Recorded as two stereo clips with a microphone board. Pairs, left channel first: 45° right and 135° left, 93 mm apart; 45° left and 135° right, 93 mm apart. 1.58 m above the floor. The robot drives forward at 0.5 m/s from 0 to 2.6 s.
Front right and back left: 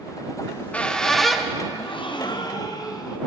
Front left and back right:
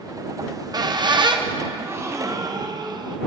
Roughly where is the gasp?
Ahead right.